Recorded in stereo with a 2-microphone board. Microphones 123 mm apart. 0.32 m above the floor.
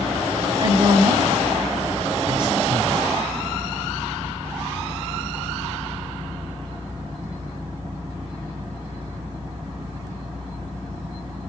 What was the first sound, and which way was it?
A woman speaking, 35° right (ahead or behind).